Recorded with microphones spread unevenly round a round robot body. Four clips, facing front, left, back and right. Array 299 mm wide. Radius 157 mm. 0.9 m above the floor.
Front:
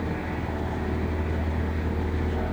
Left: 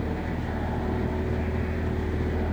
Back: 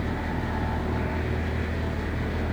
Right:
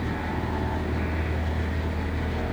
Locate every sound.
Only background noise.